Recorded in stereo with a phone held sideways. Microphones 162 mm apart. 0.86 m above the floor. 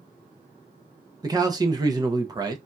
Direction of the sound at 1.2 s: 25° right (ahead or behind).